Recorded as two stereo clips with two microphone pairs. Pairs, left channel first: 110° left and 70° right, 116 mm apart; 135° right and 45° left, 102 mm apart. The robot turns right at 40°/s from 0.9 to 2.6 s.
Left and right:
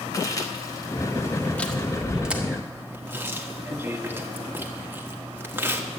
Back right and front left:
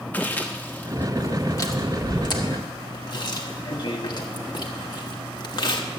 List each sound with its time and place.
0.1 s chewing: 155° left, 1.3 m; by 5.8 s 135° right, 1.3 m